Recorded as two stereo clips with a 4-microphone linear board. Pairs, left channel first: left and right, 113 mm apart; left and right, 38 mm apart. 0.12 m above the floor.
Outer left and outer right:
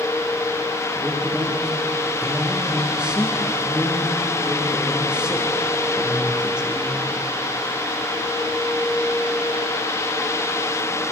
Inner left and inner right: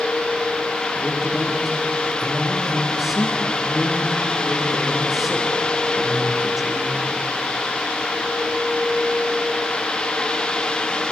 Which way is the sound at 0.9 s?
10° right (ahead or behind).